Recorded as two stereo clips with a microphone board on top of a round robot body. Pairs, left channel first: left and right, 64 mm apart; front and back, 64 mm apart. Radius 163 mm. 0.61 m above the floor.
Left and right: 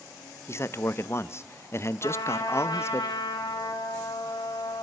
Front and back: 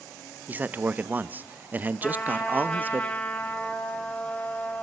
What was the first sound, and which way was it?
A man speaking, 125° left.